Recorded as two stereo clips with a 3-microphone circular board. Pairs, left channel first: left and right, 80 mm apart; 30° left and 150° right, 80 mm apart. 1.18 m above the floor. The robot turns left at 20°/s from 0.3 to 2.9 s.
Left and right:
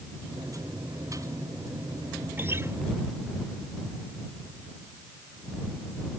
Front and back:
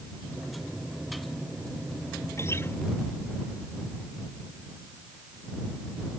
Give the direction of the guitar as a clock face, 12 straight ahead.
1 o'clock.